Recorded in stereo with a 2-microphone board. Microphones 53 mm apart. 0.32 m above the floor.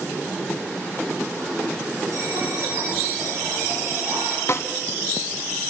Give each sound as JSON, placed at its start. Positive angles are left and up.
{"t": 2.1, "sound": "a bell", "side_deg": -85, "distance_m": 8.0}
{"t": 4.5, "sound": "a snare drum", "side_deg": 50, "distance_m": 1.2}